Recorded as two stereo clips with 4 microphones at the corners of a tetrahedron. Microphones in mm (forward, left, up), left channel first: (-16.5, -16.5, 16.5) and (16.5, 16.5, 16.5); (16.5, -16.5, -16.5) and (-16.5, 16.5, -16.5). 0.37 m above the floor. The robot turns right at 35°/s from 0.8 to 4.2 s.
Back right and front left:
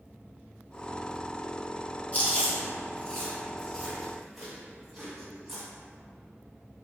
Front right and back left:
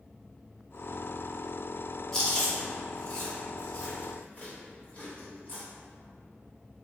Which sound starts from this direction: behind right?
Chewing, at 2.1 s.